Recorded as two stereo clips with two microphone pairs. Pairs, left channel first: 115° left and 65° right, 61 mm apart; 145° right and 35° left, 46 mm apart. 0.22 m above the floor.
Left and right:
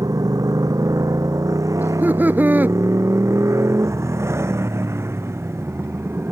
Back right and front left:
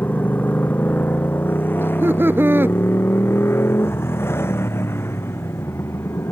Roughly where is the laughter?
Ahead.